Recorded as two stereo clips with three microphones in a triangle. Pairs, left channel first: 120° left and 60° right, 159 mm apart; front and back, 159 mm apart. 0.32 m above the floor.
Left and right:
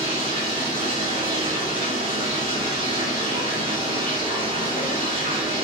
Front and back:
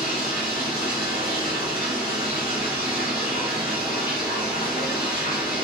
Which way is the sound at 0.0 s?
10° right.